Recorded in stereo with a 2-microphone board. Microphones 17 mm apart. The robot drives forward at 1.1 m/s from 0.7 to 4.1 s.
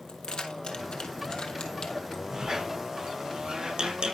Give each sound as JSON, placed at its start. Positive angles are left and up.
{"t": 0.1, "sound": "keys jangling", "side_deg": 75, "distance_m": 2.5}
{"t": 2.3, "sound": "a squeak", "side_deg": -50, "distance_m": 3.5}